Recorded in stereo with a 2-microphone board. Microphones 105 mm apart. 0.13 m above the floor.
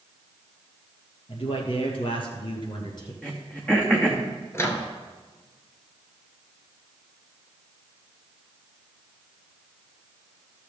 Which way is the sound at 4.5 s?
25° left (ahead or behind).